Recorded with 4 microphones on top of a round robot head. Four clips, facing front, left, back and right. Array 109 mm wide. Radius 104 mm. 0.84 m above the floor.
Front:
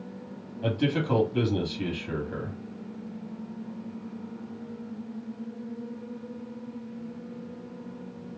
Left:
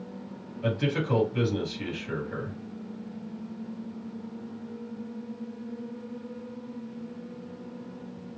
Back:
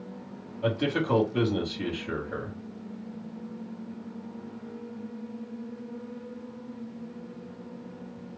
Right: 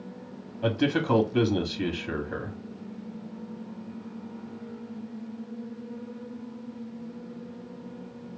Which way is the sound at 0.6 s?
90° right.